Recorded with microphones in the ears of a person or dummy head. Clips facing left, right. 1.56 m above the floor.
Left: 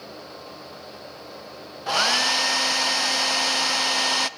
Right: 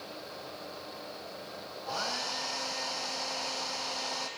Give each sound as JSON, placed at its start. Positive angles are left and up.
{"t": 1.9, "sound": "a hair dryer", "side_deg": 85, "distance_m": 0.6}